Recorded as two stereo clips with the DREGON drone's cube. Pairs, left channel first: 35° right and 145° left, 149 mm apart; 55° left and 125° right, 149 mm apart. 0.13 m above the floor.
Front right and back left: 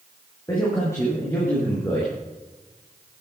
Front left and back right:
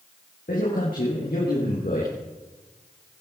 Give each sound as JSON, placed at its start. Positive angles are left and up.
{"t": 0.5, "sound": "a man speaking", "azimuth_deg": 35, "distance_m": 5.5}